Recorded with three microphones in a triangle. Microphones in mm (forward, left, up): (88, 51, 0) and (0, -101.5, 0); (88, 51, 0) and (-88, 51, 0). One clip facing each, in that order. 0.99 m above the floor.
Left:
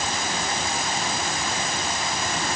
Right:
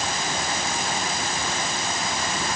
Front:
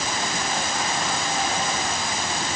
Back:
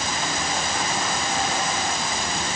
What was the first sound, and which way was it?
Only background noise.